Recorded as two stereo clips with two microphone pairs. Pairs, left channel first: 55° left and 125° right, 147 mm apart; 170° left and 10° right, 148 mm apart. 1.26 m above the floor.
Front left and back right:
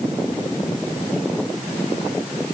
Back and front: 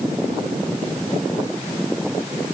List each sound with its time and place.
Only background noise.